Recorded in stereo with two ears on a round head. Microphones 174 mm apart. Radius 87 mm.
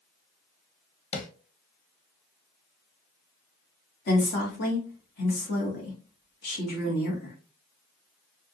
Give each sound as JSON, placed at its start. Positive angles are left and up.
{"t": 1.1, "sound": "tapping", "side_deg": 35, "distance_m": 0.8}
{"t": 4.1, "sound": "a woman speaking", "side_deg": 55, "distance_m": 1.9}